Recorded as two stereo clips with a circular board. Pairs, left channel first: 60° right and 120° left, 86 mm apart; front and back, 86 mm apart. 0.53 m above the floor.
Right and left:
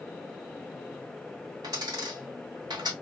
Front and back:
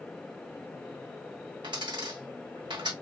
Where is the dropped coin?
155° left, 2 m.